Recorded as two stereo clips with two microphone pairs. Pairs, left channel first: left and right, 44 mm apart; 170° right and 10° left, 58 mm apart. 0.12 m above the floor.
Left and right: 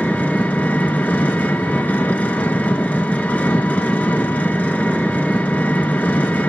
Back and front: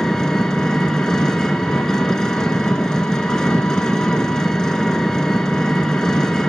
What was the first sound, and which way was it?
An engine running, 115° left.